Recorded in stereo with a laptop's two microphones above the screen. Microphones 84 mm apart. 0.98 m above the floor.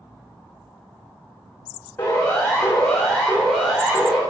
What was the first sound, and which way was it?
A siren, 25° left (ahead or behind).